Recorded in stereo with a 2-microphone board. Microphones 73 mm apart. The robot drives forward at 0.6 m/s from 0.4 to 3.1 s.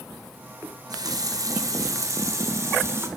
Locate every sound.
0.6 s a running tap: 65° right (ahead or behind), 1.9 m; by 3.1 s 40° right (ahead or behind), 3 m